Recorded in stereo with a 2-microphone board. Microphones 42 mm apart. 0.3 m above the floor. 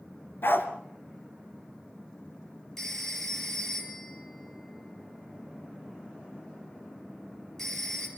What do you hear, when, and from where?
0.4 s a dog barking: 65° left (ahead or behind), 1.8 m
2.8 s a phone ringing: 10° left (ahead or behind), 4.5 m